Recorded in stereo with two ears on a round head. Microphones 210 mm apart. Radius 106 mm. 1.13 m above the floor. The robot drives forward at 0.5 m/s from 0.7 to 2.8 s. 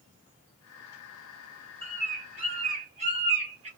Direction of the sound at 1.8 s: 25° right (ahead or behind).